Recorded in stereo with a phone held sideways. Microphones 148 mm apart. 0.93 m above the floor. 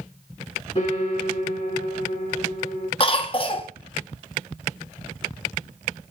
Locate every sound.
0.8 s a piano: 45° left (ahead or behind), 6.5 m
3.0 s a cough: 40° left (ahead or behind), 1.1 m